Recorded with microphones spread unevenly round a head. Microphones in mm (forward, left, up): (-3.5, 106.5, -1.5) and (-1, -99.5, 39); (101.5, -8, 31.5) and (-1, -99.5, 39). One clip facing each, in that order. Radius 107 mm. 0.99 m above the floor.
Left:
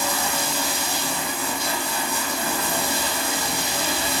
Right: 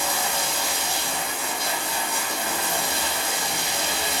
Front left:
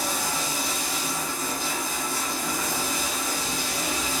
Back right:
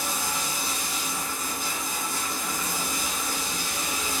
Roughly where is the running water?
Left.